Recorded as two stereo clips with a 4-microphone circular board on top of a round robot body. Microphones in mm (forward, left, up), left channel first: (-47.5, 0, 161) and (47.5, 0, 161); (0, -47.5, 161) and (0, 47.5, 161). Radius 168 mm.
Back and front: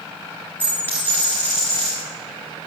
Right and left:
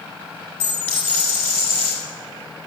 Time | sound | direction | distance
0.6 | a dropped coin | 110° right | 1.0 m